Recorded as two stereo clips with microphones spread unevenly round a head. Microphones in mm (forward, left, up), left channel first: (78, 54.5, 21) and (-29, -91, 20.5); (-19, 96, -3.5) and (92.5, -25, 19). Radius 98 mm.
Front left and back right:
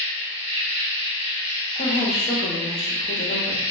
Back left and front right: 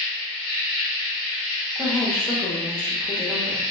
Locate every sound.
0.0 s an insect: 65° right, 1.0 m
1.8 s a woman speaking: 65° left, 0.7 m